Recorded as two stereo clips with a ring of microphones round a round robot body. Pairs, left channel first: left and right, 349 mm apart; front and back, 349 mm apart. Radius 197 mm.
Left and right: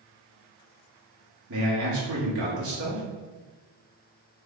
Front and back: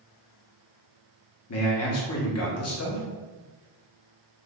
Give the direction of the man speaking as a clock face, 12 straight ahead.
1 o'clock.